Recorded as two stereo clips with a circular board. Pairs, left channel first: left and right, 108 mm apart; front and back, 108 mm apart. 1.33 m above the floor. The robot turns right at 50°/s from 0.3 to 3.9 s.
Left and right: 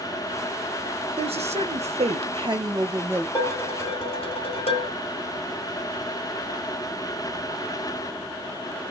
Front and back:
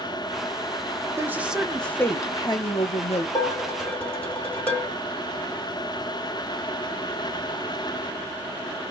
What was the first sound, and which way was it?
A woman speaking, 115° right.